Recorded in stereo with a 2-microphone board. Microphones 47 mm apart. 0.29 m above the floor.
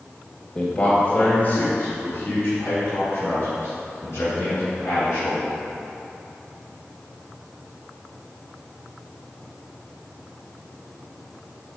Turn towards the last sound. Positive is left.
turn(degrees=70)  # may be behind; listen again after turning